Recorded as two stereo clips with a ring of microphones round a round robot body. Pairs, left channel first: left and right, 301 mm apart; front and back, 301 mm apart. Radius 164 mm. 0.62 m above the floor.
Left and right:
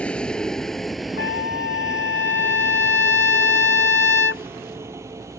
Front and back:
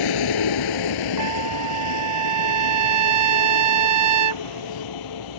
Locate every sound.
0.0 s a vehicle: 5° left; by 5.4 s 10° right
1.2 s a trumpet: 140° left